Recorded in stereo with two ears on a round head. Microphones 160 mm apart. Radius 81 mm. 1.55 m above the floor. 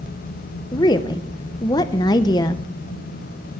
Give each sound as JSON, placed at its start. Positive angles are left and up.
{"t": 0.7, "sound": "a woman speaking", "side_deg": 20, "distance_m": 0.7}